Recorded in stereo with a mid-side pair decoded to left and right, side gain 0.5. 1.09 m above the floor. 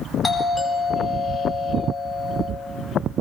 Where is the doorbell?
20° left, 4.5 m.